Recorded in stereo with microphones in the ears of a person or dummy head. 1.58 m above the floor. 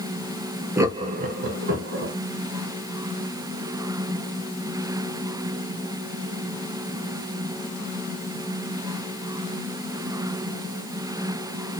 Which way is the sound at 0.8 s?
10° right (ahead or behind).